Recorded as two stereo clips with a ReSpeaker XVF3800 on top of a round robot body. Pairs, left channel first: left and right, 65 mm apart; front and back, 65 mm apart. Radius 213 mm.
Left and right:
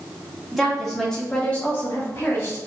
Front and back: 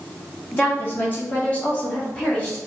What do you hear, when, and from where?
0.5 s a woman speaking: 5° right, 1.5 m; by 2.6 s 65° left, 1.7 m